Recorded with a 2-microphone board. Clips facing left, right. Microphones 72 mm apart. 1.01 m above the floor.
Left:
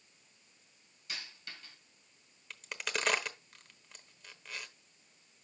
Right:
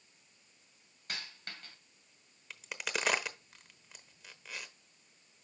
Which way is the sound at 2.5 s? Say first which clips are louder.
Even; 5° right (ahead or behind).